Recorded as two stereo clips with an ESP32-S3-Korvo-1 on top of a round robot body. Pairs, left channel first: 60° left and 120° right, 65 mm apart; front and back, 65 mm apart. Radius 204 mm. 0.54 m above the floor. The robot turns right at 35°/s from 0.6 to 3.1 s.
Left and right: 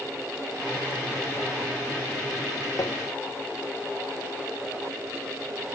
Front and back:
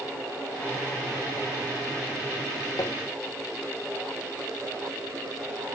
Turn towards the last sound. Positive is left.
turn(degrees=40)